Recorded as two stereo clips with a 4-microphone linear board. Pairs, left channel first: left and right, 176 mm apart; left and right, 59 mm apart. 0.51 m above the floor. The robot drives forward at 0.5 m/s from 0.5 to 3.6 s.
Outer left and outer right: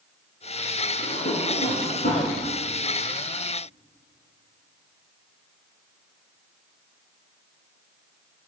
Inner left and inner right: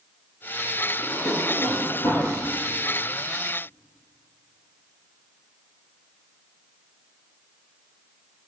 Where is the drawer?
65° left (ahead or behind), 9.5 m; by 2.3 s 60° left (ahead or behind), 9.5 m.